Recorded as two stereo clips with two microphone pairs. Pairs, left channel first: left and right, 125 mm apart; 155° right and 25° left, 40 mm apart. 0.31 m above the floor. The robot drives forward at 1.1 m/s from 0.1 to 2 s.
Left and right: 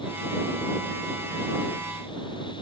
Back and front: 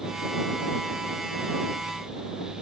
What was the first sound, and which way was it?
Only background noise.